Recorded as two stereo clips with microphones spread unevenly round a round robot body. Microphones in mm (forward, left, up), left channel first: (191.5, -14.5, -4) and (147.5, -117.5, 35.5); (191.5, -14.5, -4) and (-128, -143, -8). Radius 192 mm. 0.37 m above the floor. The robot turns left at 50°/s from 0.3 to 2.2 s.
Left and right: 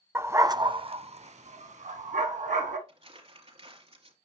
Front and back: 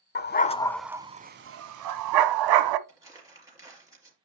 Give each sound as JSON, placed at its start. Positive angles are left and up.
{"t": 0.1, "sound": "a dog barking", "azimuth_deg": -40, "distance_m": 0.7}
{"t": 2.9, "sound": "crumpling", "azimuth_deg": -75, "distance_m": 4.0}